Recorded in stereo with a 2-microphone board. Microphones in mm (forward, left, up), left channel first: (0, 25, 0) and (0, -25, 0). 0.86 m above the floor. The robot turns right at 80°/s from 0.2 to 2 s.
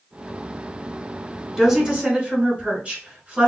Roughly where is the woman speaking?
Behind.